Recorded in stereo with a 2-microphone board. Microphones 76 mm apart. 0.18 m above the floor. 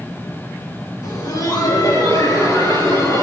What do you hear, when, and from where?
1.0 s laughter: 55° left (ahead or behind), 2.5 m; by 3.2 s 60° left (ahead or behind), 4 m